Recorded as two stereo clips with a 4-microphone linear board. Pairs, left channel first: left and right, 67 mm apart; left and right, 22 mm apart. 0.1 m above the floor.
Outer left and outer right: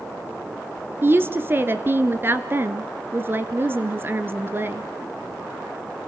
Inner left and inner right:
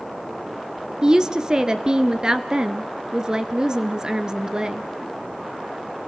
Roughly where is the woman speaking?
Right.